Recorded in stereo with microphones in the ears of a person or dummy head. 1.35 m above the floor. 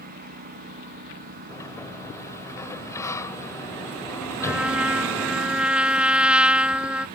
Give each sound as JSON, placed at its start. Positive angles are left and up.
{"t": 0.0, "sound": "a lawn mower", "side_deg": -50}
{"t": 1.5, "sound": "a sliding door", "side_deg": 15}
{"t": 4.4, "sound": "a trumpet", "side_deg": -5}